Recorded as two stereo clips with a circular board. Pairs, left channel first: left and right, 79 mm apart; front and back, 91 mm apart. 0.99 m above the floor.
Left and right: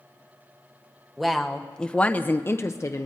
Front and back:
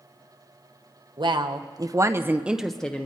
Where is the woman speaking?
Straight behind, 1.0 m; by 3.1 s 65° left, 0.7 m.